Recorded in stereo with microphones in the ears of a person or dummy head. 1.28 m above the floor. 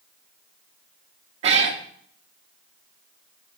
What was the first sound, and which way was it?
A cat meowing, 35° right (ahead or behind).